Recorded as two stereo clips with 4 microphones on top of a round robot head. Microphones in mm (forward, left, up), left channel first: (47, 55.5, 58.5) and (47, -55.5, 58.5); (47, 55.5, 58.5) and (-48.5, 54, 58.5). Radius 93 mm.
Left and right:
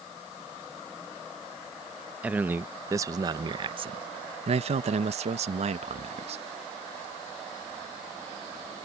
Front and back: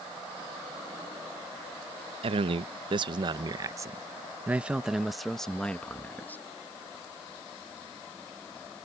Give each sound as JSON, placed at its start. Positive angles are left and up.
{"t": 2.2, "sound": "a man speaking", "azimuth_deg": -170}